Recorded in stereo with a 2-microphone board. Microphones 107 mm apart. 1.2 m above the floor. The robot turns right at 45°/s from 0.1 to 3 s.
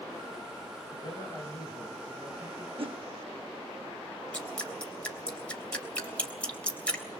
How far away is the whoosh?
About 1.0 m.